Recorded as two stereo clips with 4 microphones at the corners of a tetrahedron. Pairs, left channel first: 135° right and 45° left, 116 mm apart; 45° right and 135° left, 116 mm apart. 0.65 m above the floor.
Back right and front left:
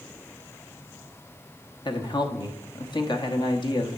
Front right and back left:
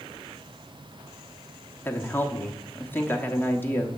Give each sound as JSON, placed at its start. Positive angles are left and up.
{"t": 1.9, "sound": "a woman speaking", "azimuth_deg": -110, "distance_m": 1.0}